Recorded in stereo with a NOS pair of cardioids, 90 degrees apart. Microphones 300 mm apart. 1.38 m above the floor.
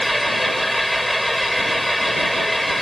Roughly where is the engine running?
Ahead.